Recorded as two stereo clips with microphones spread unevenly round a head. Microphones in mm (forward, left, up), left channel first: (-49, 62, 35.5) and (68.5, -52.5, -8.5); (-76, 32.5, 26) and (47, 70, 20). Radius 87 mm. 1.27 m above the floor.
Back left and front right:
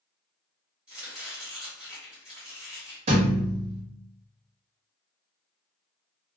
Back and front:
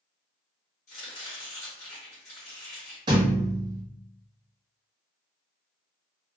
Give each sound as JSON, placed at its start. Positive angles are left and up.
{"t": 0.9, "sound": "chopping", "azimuth_deg": -140, "distance_m": 1.1}
{"t": 3.1, "sound": "a thud", "azimuth_deg": 5, "distance_m": 0.5}